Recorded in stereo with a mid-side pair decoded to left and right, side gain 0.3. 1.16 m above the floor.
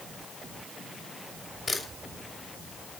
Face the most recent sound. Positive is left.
turn(degrees=40)